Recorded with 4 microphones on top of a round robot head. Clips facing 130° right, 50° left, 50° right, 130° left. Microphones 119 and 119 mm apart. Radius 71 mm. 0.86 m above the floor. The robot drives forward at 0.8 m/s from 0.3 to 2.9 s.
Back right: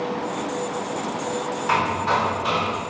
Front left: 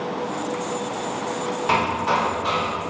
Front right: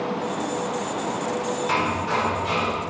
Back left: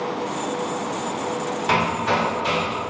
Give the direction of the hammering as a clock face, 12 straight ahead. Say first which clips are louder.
Even, back left 6 dB; 8 o'clock.